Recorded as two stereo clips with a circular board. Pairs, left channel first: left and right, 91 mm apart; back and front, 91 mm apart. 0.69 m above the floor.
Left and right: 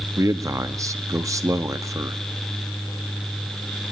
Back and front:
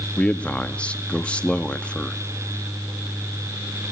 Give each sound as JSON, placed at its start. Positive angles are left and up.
{"t": 0.2, "sound": "a man speaking", "azimuth_deg": -110, "distance_m": 0.8}